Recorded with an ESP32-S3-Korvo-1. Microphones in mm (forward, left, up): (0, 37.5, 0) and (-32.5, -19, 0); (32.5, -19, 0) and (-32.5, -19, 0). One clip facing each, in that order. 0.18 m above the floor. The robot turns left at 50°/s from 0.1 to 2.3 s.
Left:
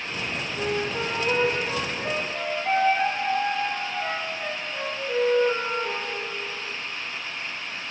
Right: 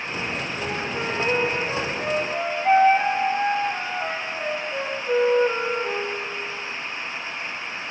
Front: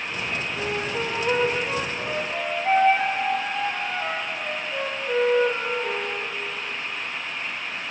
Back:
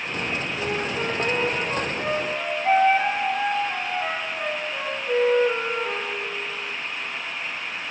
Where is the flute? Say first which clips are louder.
Left 4 dB, even; 15° left, 4 m; by 6.2 s 70° right, 4 m.